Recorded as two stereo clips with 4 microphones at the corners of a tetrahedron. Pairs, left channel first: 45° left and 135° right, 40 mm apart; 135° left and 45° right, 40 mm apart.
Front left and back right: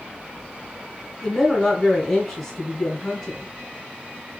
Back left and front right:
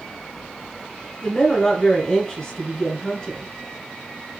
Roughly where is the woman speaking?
Behind left.